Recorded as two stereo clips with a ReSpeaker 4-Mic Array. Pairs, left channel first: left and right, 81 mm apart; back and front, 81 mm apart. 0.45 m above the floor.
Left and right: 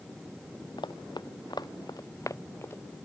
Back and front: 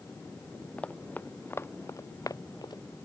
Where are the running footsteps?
105° left; by 2.8 s 150° left.